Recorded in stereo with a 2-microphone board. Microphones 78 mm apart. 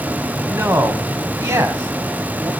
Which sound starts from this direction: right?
A man speaking, at 0.5 s.